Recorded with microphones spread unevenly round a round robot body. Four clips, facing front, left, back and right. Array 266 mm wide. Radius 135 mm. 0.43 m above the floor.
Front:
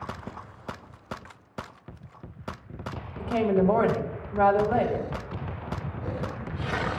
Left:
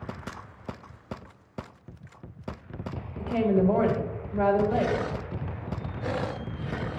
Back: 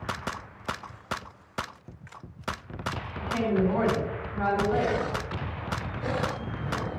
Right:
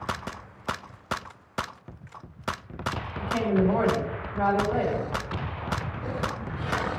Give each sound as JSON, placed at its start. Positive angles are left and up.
{"t": 3.2, "sound": "a woman speaking", "azimuth_deg": 30, "distance_m": 2.5}